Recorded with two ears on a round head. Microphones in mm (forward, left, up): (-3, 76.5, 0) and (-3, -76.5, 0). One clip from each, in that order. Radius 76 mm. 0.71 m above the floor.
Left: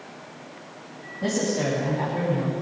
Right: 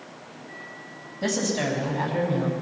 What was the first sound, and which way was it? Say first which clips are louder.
A woman speaking: even; 60° right (ahead or behind).